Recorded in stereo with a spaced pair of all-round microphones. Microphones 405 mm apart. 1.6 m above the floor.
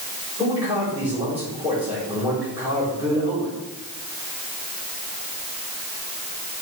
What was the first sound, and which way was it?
A man speaking, 10° right (ahead or behind).